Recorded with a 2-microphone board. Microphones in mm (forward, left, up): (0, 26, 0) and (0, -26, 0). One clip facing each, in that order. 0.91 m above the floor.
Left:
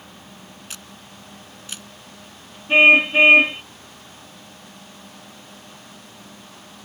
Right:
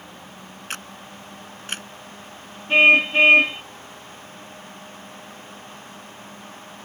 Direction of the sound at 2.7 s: 10° left (ahead or behind).